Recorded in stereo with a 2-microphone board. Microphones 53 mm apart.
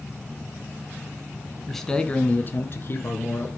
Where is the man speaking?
Centre (ahead or behind), 1.1 m; by 3.5 s 60° left (ahead or behind), 2 m.